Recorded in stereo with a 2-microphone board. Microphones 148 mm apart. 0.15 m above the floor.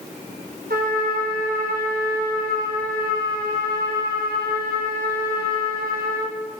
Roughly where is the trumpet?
Right.